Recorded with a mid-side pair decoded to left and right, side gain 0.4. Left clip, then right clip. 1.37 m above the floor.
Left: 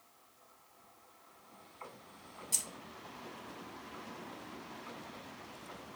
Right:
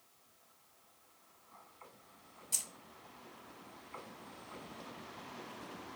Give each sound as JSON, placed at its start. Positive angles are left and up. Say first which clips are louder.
{"t": 2.5, "sound": "keys jangling", "louder": "left 2 dB", "azimuth_deg": 15, "distance_m": 0.8}